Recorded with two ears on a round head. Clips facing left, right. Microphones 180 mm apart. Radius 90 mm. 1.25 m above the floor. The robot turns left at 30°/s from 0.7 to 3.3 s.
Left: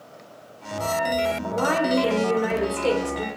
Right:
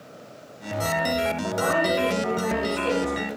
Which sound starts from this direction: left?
A woman speaking, at 1.5 s.